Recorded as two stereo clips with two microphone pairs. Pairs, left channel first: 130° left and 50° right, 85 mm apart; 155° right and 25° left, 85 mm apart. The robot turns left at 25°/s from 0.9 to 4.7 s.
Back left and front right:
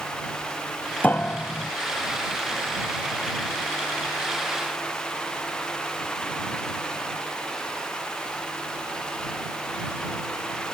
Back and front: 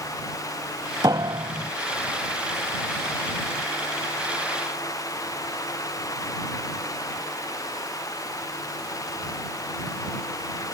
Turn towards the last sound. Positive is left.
turn(degrees=-30)